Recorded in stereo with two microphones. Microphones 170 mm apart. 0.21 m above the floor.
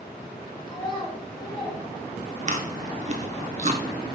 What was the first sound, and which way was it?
A child speaking, 25° left (ahead or behind).